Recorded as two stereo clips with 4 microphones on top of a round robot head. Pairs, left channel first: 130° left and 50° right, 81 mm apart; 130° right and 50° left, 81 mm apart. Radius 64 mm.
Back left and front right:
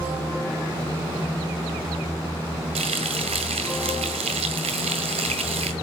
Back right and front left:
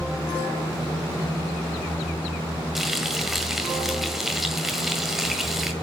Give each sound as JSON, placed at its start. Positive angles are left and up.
{"t": 2.8, "sound": "frying", "azimuth_deg": -40, "distance_m": 1.5}